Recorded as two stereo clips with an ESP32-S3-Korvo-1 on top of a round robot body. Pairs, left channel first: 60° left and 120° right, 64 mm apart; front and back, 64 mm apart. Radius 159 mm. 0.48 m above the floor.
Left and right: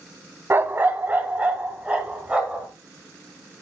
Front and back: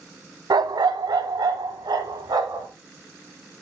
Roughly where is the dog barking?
Behind.